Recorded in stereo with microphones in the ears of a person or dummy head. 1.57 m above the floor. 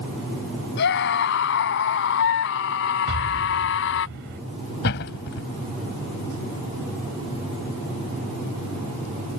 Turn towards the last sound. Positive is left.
turn(degrees=55)  # may be behind; listen again after turning